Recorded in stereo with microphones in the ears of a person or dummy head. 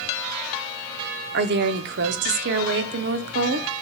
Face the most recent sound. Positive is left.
turn(degrees=-60)  # may be behind; listen again after turning